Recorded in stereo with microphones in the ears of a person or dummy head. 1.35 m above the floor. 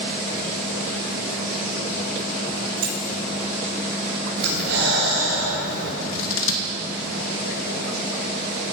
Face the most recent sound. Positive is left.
turn(degrees=70)  # may be behind; listen again after turning